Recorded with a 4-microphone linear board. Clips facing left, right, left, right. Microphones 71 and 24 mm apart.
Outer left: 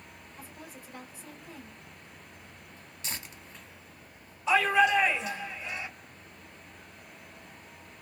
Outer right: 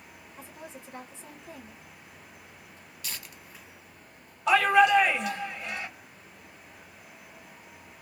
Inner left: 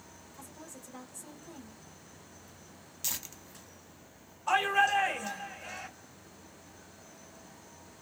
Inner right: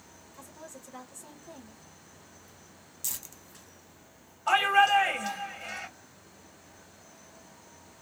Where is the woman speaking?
25° right (ahead or behind), 1.4 m.